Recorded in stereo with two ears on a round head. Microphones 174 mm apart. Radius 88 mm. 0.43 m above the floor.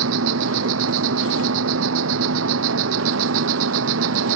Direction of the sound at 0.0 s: 80° right.